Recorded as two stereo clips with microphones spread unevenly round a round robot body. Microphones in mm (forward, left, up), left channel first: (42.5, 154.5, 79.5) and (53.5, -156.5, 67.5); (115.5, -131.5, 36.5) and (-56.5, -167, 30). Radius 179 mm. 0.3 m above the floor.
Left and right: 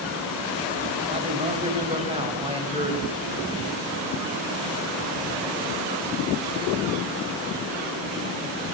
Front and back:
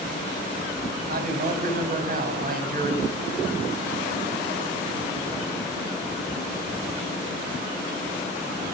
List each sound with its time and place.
1.1 s a man speaking: 155° right, 2.5 m